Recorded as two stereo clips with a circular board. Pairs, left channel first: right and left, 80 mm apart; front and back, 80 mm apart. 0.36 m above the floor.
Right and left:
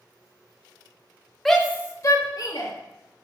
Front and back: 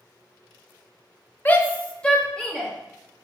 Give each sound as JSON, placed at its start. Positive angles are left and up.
{"t": 1.4, "sound": "a shout", "azimuth_deg": -5, "distance_m": 0.8}